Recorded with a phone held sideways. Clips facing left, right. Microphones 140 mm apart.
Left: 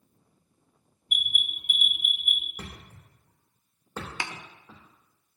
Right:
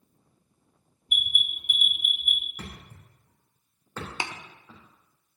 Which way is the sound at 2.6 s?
15° left (ahead or behind).